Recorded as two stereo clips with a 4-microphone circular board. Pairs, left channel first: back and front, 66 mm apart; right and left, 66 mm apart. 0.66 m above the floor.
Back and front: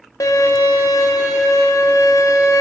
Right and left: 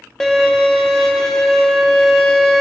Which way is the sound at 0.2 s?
170° right.